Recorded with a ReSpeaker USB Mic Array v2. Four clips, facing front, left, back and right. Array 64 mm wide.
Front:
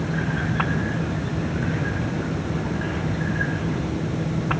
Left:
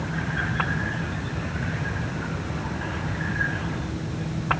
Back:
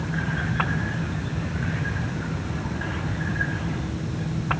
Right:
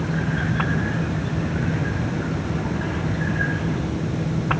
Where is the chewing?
I don't hear chewing.